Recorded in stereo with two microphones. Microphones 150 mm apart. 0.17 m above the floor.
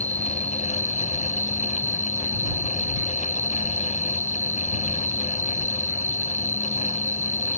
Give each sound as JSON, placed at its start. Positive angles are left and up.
{"t": 0.0, "sound": "an insect", "side_deg": 10}